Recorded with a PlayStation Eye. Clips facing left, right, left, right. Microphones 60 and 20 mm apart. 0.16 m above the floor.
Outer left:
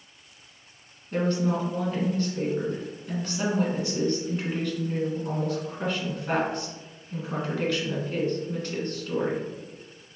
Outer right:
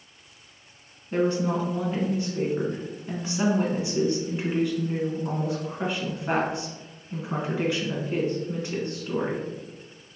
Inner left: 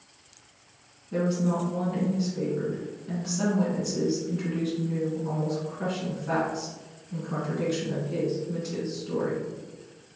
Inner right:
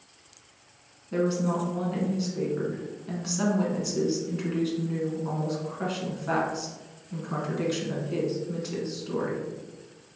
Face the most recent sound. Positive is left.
turn(degrees=-20)  # may be behind; listen again after turning